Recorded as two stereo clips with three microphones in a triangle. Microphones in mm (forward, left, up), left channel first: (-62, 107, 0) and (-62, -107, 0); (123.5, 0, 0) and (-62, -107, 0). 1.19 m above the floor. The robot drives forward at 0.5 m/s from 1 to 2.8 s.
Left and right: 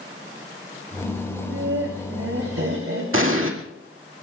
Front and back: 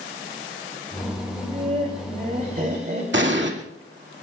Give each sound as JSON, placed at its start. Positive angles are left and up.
{"t": 1.3, "sound": "laughter", "azimuth_deg": -90, "distance_m": 3.0}
{"t": 3.1, "sound": "an explosion", "azimuth_deg": -115, "distance_m": 2.0}